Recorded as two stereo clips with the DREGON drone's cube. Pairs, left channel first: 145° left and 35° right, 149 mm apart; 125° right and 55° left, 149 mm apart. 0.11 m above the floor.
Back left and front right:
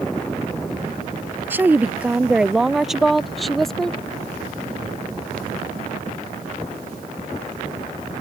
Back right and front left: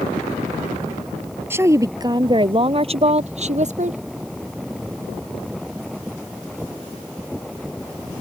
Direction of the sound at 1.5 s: 15° left.